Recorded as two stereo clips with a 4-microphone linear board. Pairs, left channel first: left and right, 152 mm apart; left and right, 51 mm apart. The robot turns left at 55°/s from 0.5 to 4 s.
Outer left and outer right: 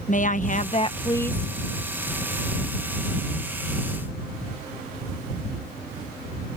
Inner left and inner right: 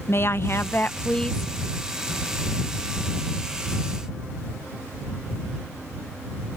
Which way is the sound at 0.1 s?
55° left.